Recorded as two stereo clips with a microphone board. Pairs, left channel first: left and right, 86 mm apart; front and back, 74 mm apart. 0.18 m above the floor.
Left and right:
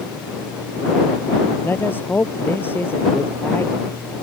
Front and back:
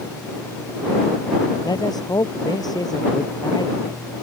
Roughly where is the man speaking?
Ahead left.